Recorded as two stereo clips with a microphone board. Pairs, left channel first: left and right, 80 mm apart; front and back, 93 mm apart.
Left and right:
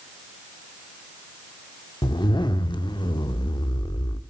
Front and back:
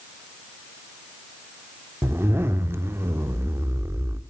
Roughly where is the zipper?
Behind left.